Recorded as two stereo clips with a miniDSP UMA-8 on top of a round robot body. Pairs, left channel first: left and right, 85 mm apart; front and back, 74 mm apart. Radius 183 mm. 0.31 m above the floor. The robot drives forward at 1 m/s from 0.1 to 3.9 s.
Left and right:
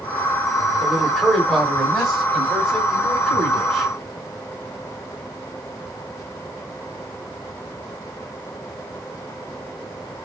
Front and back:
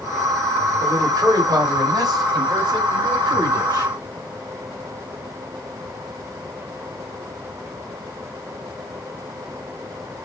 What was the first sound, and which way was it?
A man speaking, 170° right.